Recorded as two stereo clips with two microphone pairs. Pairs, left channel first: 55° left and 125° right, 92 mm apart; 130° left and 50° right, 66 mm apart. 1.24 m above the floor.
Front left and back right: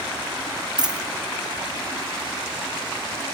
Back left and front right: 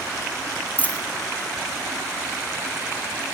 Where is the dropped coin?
165° right, 1.5 m.